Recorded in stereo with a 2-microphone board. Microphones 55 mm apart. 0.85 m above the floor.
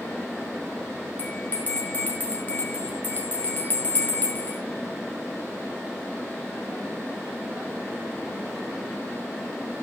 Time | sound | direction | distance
1.2 | a bell | 30° left (ahead or behind) | 5.5 m